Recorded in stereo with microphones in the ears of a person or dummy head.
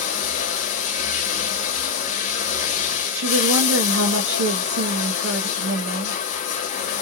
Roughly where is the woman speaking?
Right.